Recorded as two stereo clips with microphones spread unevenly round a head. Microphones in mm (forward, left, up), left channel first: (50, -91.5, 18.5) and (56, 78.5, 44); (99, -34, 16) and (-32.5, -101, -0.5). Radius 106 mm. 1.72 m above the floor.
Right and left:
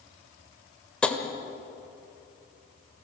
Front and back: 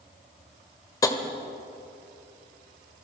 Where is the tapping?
Straight ahead, 1.6 m.